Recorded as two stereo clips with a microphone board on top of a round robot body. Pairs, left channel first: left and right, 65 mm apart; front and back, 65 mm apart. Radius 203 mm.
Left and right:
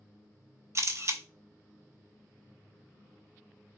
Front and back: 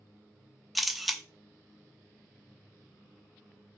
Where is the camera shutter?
90° right, 0.8 m.